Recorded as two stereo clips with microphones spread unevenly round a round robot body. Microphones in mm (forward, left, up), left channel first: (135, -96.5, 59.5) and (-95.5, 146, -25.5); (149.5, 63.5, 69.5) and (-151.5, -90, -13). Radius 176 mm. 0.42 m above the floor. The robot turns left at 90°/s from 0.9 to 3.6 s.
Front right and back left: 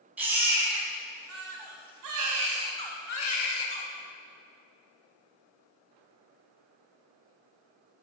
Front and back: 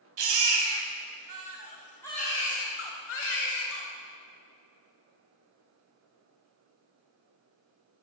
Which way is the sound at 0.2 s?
145° right.